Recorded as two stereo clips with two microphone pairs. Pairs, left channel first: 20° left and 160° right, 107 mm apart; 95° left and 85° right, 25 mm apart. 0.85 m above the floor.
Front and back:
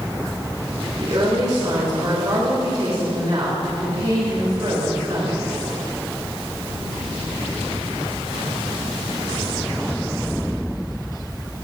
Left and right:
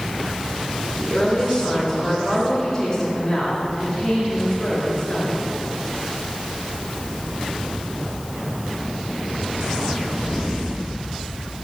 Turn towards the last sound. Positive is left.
turn(degrees=170)